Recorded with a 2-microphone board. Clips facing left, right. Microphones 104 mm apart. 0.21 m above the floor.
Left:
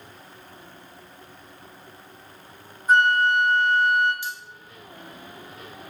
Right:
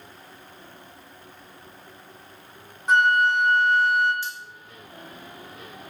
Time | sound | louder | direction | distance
2.9 | a flute | left 1 dB | 80° right | 1.5 m
4.2 | cutlery clinking | left 1 dB | 15° left (ahead or behind) | 0.8 m